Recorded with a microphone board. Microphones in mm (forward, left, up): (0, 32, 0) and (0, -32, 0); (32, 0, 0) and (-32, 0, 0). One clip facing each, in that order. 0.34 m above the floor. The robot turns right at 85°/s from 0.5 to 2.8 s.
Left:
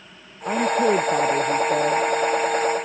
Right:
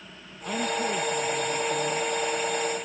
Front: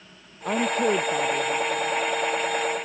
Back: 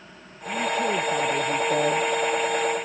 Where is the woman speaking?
30° left; by 2.0 s 160° left.